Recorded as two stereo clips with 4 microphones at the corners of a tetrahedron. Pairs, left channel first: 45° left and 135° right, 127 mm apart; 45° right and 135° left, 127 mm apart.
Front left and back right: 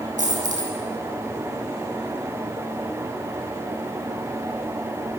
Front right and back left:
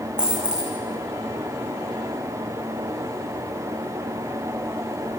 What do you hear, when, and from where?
0.2 s a dropped coin: 145° right, 5.5 m